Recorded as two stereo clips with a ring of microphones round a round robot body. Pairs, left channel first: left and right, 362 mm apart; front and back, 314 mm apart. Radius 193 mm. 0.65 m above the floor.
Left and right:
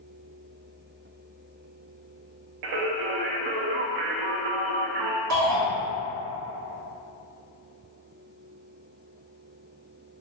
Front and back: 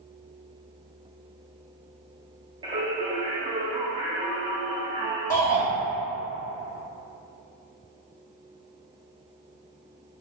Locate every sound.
2.6 s singing: 105° right, 0.6 m
5.3 s a shout: 80° right, 1.7 m